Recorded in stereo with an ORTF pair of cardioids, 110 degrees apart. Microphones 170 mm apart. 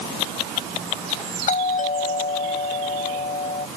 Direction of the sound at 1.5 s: 45° left.